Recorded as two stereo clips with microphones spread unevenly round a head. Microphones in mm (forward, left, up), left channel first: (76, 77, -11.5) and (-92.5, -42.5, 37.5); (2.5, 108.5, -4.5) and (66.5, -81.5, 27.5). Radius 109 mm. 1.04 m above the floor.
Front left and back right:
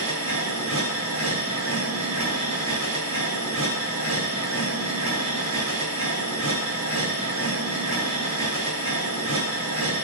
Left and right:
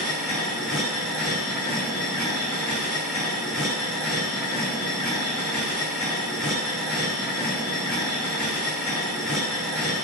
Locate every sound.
0.0 s a machine running: 160° right, 5.5 m